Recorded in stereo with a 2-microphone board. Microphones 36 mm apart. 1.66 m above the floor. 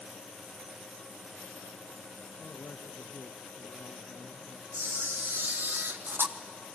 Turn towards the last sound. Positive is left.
turn(degrees=-60)  # may be behind; listen again after turning